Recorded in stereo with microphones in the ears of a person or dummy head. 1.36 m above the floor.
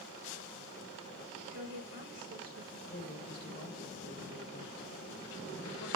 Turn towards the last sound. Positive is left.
turn(degrees=25)  # may be behind; listen again after turning